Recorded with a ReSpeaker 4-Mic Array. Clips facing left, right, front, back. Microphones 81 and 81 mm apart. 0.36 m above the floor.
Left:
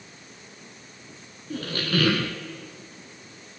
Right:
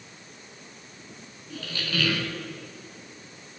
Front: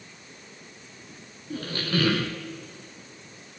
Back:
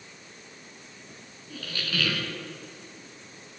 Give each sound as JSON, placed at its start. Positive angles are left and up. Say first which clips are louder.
{"t": 1.5, "sound": "a squeak", "louder": "left 6 dB, front 6 dB", "azimuth_deg": 50, "distance_m": 0.9}